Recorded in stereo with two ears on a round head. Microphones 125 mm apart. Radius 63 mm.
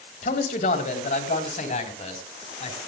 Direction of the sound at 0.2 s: 60° left (ahead or behind).